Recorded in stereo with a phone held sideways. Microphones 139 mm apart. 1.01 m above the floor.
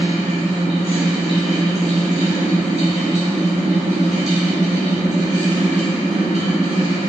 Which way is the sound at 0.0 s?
55° right (ahead or behind).